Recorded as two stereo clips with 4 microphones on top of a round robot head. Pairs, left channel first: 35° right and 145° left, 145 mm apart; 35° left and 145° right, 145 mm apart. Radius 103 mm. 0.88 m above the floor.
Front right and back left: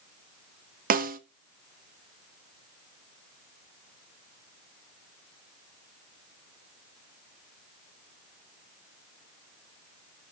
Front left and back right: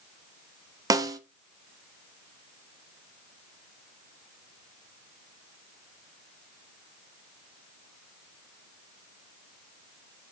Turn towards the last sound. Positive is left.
turn(degrees=150)